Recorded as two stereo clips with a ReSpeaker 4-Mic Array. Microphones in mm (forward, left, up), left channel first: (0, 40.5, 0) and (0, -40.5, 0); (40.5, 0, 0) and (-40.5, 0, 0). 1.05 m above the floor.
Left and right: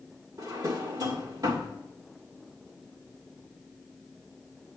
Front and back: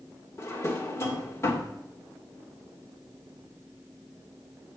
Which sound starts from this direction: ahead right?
A drawer, at 0.4 s.